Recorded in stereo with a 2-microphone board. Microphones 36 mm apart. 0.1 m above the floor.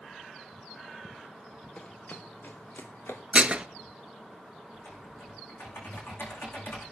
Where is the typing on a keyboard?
65° left (ahead or behind), 8 m.